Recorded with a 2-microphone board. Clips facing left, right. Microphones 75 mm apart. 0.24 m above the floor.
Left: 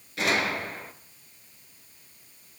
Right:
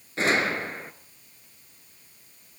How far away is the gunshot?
About 1.9 m.